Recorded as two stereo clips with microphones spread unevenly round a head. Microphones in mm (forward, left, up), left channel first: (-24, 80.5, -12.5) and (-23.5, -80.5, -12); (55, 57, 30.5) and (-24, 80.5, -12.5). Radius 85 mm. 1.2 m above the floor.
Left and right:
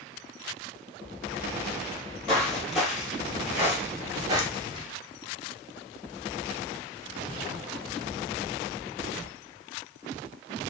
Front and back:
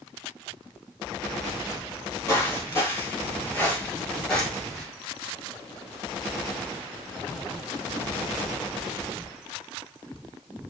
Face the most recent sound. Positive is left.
turn(degrees=-65)